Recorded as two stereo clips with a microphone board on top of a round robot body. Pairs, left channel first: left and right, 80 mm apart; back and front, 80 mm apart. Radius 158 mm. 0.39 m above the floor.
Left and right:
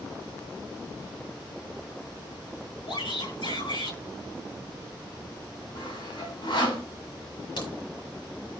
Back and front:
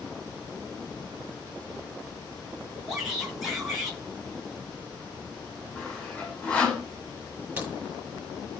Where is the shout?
85° left, 7.5 m.